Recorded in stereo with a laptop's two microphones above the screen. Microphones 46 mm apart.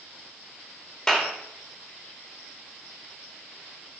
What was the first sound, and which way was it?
A clap, 10° left (ahead or behind).